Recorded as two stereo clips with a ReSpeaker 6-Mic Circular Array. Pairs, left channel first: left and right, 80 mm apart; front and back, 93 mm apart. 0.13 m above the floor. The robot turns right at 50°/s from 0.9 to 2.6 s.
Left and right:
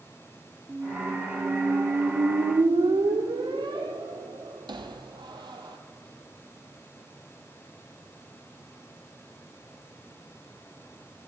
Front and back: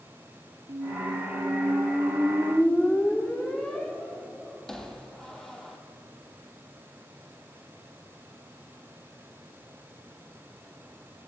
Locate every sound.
0.7 s a squeak: 170° right, 0.6 m; by 5.8 s 85° right, 0.6 m